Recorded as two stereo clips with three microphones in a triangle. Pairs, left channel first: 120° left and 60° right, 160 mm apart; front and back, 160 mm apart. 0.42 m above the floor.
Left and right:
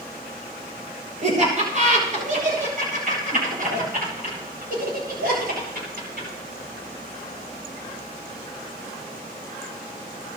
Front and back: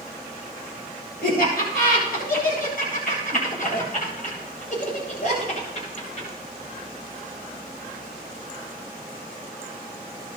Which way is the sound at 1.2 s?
20° right.